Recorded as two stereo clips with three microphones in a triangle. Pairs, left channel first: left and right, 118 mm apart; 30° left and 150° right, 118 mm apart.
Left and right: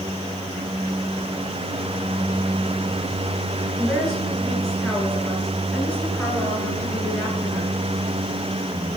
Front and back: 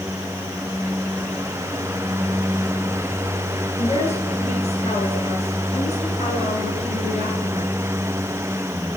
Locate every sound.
3.8 s a woman speaking: straight ahead, 7.5 m; by 7.7 s 20° left, 8.5 m